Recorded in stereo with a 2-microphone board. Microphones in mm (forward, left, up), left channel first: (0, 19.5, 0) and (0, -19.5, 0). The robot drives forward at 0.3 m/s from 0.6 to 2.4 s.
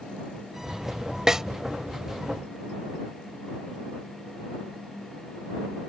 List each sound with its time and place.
1.3 s a snare drum: 15° right (ahead or behind)